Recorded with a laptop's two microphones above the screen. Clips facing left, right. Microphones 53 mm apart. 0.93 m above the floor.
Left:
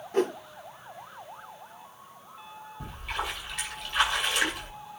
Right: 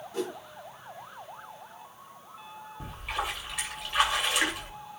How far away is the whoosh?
About 0.5 m.